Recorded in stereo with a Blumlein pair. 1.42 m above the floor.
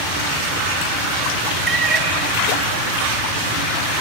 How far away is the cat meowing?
About 3.5 m.